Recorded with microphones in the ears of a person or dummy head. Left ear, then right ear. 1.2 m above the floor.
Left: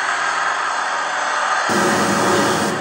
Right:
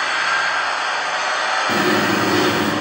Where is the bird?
55° left (ahead or behind), 1.1 m.